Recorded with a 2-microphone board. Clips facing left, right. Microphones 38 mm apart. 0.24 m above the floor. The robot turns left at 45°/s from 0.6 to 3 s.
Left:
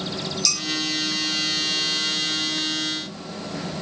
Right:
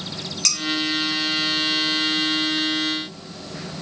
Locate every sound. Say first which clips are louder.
0.5 s dishes clattering: right 3 dB; 55° right (ahead or behind), 1.8 m